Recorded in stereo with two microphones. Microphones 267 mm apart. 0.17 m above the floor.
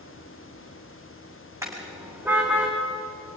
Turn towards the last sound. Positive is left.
turn(degrees=-5)  # may be behind; listen again after turning